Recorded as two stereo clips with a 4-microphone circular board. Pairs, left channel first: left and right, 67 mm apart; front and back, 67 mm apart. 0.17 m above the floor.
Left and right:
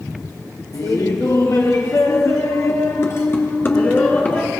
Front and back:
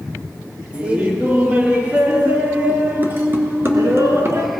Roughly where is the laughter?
Left.